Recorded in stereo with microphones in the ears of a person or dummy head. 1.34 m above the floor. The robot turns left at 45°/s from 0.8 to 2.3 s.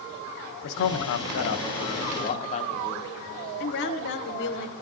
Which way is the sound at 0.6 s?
105° left.